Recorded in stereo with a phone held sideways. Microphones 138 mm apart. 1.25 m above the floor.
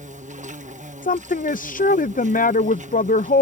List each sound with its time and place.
0.0 s an insect: 60° right (ahead or behind)
1.0 s a woman speaking: 75° left (ahead or behind)